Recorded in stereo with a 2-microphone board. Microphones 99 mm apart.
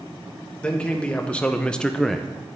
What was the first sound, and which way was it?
A man speaking, 10° left (ahead or behind).